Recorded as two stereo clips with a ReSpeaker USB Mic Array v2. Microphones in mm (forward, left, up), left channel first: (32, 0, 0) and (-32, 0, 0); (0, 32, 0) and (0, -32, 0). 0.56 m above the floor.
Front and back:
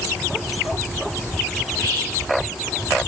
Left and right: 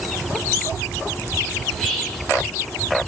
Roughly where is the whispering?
Behind.